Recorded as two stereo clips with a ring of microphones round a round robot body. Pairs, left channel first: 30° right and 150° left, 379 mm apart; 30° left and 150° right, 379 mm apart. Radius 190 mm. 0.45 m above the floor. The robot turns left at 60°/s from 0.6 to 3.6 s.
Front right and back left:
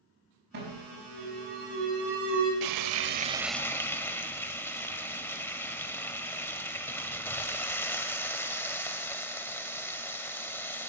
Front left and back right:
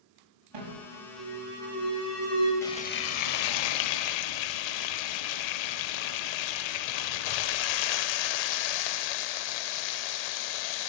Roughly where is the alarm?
Behind right.